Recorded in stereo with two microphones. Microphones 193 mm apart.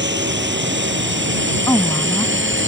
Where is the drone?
70° right (ahead or behind); by 2.7 s 80° right.